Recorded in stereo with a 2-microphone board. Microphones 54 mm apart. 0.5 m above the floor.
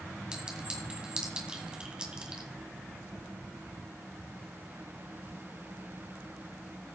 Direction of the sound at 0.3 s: 15° right (ahead or behind).